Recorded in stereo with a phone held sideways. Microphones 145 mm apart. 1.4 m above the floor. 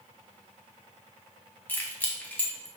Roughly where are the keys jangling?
Centre.